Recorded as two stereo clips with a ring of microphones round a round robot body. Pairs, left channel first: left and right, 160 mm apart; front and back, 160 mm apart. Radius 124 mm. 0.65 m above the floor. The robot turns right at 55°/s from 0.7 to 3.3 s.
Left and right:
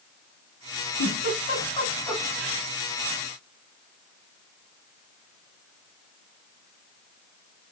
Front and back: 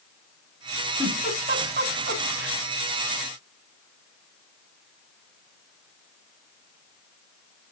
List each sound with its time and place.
1.0 s a giggle: 120° left, 4 m; by 2.6 s 155° right, 4 m